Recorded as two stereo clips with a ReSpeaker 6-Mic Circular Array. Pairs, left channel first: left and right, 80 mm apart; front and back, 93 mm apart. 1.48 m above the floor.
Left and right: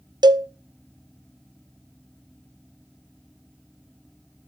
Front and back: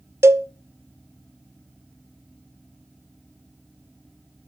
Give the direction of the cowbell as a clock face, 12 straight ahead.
4 o'clock.